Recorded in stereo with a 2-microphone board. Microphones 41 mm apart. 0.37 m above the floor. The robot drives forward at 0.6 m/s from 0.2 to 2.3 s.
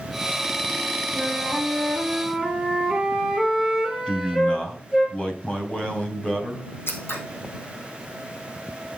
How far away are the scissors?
About 3 m.